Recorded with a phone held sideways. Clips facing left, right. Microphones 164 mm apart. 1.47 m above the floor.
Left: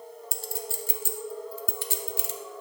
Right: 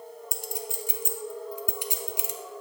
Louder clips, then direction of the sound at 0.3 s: Even; 15° right (ahead or behind).